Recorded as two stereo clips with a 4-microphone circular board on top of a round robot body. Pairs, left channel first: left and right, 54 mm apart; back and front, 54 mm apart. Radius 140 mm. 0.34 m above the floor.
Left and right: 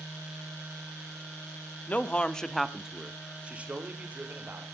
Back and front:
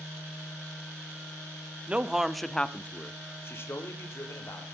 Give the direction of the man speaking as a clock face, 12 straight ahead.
10 o'clock.